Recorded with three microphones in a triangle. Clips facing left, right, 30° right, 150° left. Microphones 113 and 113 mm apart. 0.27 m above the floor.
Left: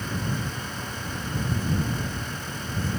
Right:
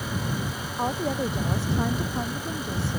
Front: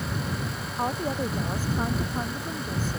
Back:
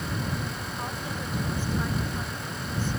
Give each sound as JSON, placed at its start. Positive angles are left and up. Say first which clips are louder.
{"t": 0.8, "sound": "a woman speaking", "louder": "right 8 dB, front 10 dB", "azimuth_deg": -80}